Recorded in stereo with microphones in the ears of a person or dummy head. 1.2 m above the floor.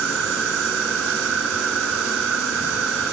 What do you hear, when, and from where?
0.0 s an insect: 80° right